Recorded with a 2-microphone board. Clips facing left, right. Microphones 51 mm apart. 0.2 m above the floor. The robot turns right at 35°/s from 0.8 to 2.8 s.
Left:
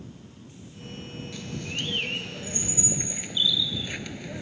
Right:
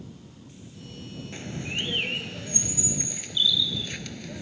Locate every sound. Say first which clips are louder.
1.3 s a bird: right 2 dB; 40° right; by 4.4 s 15° left